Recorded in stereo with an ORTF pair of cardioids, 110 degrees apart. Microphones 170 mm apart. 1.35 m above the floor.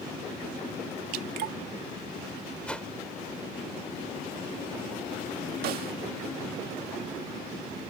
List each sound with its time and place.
1.1 s dripping: 70° right
2.6 s a whoosh: 5° left
5.6 s a snare drum: 65° right